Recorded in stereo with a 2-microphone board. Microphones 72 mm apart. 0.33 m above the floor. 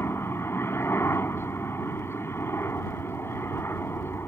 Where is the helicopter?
35° left (ahead or behind).